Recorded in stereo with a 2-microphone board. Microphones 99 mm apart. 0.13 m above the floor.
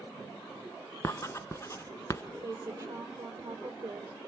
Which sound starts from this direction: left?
Writing, at 1.0 s.